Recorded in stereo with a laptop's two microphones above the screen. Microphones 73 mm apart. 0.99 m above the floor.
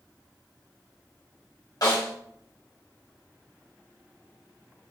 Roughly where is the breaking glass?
No breaking glass in this recording.